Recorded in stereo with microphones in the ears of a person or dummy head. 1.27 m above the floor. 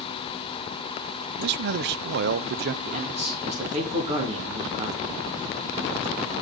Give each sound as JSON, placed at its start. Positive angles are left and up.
{"t": 1.4, "sound": "a man speaking", "side_deg": -60, "distance_m": 0.6}
{"t": 2.8, "sound": "a man speaking", "side_deg": -30, "distance_m": 2.5}